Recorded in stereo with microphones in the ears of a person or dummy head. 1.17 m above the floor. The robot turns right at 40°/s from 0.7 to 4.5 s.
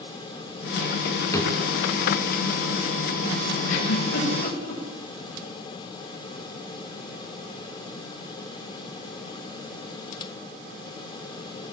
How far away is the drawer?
About 3.5 m.